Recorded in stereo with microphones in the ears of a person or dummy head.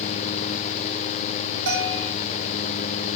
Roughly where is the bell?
Right.